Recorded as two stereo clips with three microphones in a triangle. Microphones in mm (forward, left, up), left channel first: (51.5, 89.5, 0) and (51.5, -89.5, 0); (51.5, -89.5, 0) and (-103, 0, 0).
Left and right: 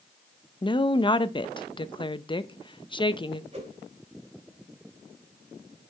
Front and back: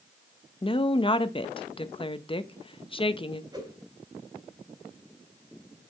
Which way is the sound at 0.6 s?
25° left.